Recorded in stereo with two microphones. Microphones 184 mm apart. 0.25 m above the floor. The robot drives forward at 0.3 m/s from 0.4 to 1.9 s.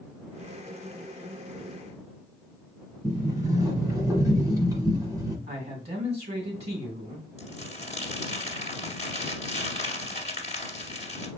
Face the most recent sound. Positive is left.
turn(degrees=40)  # may be behind; listen again after turning